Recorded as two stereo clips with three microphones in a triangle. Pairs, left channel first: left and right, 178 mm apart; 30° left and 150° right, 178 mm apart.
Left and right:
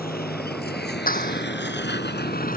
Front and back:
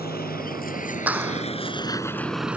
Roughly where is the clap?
Behind left.